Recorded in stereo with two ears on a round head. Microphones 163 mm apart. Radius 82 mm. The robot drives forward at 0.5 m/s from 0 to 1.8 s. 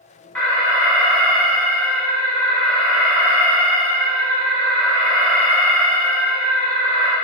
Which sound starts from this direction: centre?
An alarm, at 0.3 s.